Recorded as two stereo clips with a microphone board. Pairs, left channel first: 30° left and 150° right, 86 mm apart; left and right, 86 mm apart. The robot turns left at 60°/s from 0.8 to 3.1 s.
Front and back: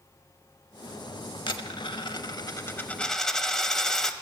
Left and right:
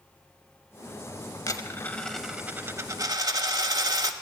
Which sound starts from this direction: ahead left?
A dropped coin, at 1.5 s.